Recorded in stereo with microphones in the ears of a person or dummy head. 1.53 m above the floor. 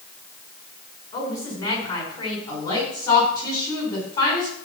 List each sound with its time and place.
1.1 s a woman speaking: 25° left (ahead or behind), 5.5 m
2.5 s a woman speaking: 20° left (ahead or behind), 6 m